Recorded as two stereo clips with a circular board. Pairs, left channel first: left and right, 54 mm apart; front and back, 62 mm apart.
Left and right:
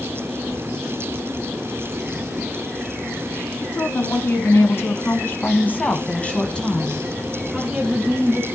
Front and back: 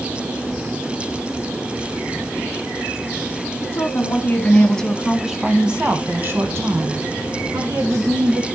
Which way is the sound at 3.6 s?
45° left.